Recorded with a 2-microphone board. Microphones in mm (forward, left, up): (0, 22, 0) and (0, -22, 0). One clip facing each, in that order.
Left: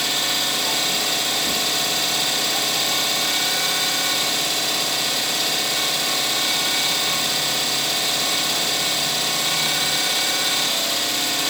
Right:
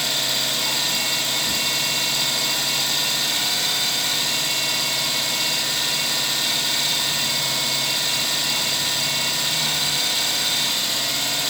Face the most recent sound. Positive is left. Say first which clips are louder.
# left 1 dB
turn(degrees=70)  # may be behind; listen again after turning